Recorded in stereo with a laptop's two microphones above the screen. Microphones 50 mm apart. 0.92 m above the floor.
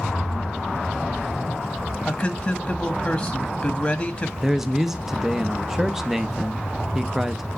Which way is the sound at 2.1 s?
15° left (ahead or behind).